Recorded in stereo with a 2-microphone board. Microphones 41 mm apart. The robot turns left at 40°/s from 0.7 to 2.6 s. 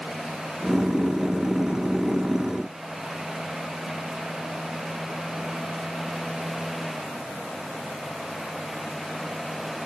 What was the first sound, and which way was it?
Only background noise.